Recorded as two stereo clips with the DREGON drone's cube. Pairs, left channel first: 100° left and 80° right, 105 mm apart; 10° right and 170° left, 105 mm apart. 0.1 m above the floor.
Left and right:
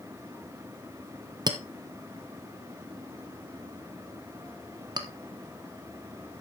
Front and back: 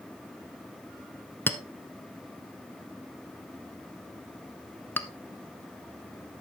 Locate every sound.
1.5 s a clink: 75° right, 0.9 m